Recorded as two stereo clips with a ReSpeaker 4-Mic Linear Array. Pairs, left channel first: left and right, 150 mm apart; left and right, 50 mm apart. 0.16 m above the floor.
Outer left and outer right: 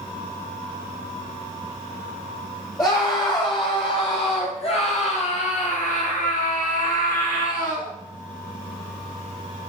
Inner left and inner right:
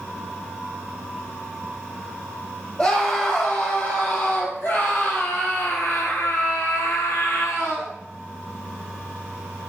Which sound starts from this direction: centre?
A scream, at 2.8 s.